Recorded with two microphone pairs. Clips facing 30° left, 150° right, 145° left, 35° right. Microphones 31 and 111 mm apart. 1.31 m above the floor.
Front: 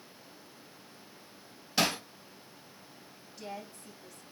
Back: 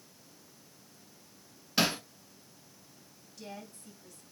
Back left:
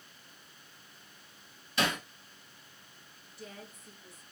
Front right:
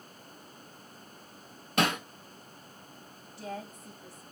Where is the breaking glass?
I don't hear breaking glass.